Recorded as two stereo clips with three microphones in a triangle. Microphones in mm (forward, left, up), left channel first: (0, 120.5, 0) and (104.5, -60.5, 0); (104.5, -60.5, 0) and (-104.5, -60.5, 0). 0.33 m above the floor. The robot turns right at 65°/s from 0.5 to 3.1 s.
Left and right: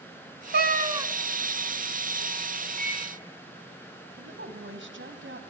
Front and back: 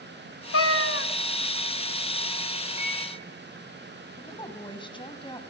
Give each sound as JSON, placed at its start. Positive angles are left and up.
{"t": 0.5, "sound": "a cat meowing", "azimuth_deg": -15, "distance_m": 0.6}
{"t": 2.8, "sound": "a microwave", "azimuth_deg": -155, "distance_m": 5.0}
{"t": 4.2, "sound": "a woman speaking", "azimuth_deg": -65, "distance_m": 2.0}